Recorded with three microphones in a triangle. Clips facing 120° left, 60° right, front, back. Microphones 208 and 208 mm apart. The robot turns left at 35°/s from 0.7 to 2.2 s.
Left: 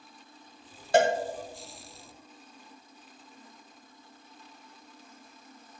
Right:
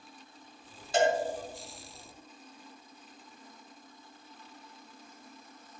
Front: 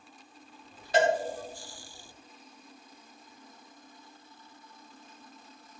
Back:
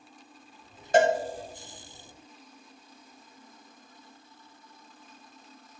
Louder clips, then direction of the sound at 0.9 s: Left 3 dB, back 3 dB; 140° left.